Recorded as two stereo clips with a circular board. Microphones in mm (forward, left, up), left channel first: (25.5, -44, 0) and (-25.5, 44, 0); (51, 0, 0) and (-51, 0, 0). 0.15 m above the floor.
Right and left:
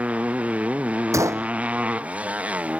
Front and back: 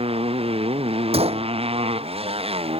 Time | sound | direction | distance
0.0 | a motorcycle | 165° right | ?
1.1 | a gunshot | straight behind | ?